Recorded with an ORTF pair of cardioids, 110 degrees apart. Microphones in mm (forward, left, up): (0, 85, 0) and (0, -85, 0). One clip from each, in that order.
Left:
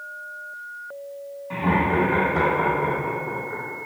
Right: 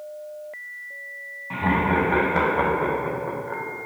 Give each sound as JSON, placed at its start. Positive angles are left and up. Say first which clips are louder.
{"t": 1.5, "sound": "laughter", "louder": "even", "azimuth_deg": -25, "distance_m": 1.4}